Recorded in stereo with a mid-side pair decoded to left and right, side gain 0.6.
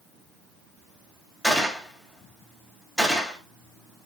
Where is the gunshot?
10° left, 3 m.